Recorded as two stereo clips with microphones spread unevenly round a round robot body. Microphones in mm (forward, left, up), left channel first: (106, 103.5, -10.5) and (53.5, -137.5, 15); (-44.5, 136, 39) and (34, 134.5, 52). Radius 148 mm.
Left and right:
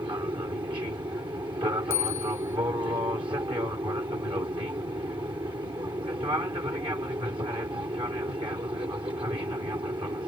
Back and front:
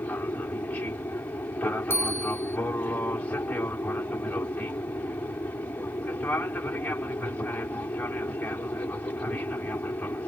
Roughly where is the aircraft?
Behind.